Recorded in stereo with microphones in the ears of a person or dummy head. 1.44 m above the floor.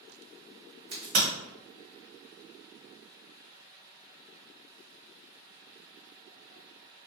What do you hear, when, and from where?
0.9 s a crack: 40° right (ahead or behind), 1.3 m